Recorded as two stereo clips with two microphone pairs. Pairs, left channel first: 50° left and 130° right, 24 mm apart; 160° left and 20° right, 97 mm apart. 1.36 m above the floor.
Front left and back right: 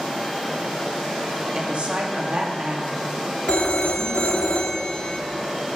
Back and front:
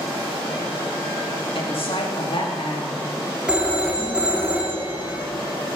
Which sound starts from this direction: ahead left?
A phone ringing, at 3.5 s.